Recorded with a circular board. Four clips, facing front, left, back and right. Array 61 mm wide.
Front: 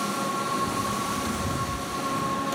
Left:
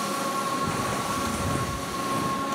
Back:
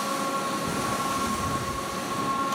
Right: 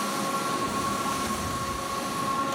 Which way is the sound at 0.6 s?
120° left.